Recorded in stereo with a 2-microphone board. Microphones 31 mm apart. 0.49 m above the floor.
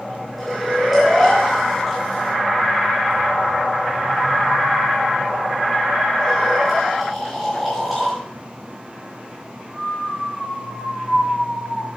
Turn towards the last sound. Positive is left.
turn(degrees=0)  # may be behind; listen again after turning